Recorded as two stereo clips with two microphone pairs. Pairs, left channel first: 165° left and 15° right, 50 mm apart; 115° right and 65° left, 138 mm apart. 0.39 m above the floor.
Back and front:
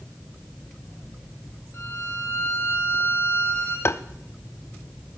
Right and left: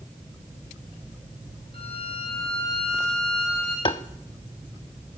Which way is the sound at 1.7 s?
165° right.